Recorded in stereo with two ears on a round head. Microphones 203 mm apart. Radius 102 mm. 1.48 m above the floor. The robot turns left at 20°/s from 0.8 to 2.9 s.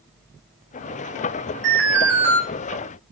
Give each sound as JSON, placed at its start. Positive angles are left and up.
{"t": 1.6, "sound": "an alarm", "side_deg": -55, "distance_m": 7.0}